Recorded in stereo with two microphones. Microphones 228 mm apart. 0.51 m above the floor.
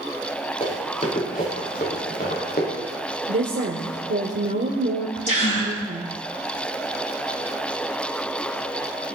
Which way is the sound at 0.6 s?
30° left (ahead or behind).